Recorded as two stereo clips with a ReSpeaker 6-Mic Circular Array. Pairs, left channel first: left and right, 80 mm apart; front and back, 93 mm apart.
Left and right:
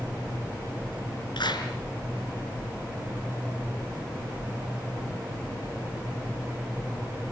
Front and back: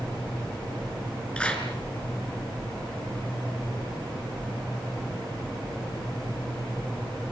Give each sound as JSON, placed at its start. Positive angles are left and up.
{"t": 1.4, "sound": "a clap", "azimuth_deg": 75, "distance_m": 5.0}